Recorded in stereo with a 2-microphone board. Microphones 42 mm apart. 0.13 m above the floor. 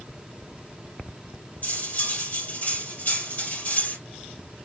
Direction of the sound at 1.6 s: 40° left (ahead or behind).